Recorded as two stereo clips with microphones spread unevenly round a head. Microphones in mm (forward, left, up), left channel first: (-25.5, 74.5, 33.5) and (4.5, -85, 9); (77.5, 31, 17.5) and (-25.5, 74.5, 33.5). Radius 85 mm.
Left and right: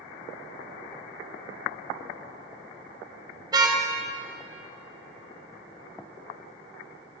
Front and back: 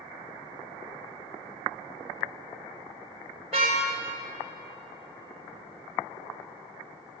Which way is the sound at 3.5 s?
150° right.